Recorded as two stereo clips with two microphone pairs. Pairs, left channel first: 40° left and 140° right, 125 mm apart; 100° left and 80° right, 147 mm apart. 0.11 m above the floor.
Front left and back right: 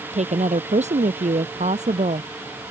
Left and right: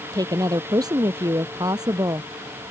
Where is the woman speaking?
140° right.